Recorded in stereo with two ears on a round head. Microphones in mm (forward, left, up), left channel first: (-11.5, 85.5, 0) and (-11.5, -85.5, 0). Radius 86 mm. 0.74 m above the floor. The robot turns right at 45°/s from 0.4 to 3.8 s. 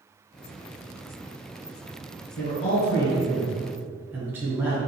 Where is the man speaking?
125° left, 2.0 m; by 4.8 s 170° right, 2.0 m.